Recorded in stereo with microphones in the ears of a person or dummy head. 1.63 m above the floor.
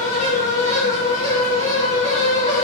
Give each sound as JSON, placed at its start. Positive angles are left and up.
{"t": 0.0, "sound": "a fan", "side_deg": 30, "distance_m": 0.9}